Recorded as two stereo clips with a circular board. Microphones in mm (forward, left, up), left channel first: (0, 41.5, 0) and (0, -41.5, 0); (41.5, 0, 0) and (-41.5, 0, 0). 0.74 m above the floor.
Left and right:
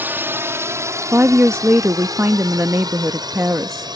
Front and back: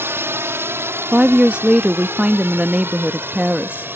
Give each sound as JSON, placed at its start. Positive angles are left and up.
{"t": 0.0, "sound": "a drone", "azimuth_deg": -140}
{"t": 1.1, "sound": "a woman speaking", "azimuth_deg": -120}